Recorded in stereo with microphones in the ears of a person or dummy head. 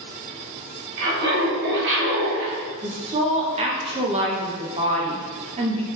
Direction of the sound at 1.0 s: 55° right (ahead or behind).